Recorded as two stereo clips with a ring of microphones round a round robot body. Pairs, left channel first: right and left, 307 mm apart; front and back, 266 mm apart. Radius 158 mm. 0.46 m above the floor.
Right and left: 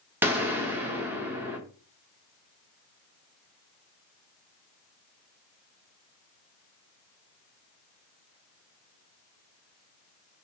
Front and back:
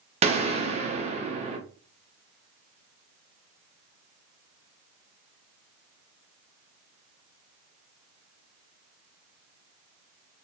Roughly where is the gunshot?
Behind.